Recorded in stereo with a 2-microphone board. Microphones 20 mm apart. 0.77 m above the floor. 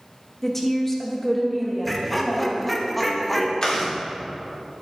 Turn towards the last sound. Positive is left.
turn(degrees=45)  # may be behind; listen again after turning